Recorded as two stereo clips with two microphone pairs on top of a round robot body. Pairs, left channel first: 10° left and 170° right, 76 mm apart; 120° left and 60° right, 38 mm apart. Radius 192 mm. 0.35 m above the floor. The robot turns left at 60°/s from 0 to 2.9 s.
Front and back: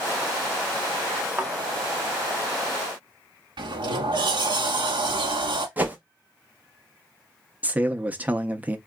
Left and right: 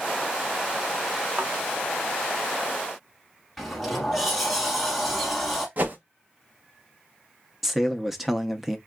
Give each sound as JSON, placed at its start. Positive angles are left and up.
{"t": 1.4, "sound": "a thud", "azimuth_deg": -100, "distance_m": 0.6}
{"t": 3.6, "sound": "a sliding door", "azimuth_deg": -150, "distance_m": 0.9}
{"t": 5.8, "sound": "a whoosh", "azimuth_deg": -105, "distance_m": 0.8}
{"t": 7.6, "sound": "a man speaking", "azimuth_deg": -120, "distance_m": 0.9}